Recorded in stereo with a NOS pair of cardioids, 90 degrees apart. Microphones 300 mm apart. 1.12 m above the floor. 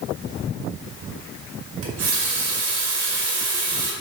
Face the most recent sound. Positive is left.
turn(degrees=-50)